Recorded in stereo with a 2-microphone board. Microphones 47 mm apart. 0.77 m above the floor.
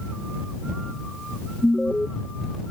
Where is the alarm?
15° left (ahead or behind).